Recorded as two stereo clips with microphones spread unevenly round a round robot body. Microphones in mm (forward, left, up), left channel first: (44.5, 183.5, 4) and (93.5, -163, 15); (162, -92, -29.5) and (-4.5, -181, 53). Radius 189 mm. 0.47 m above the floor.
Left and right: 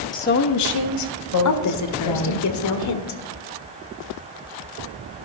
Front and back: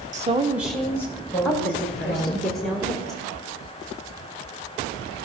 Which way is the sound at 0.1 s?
150° left.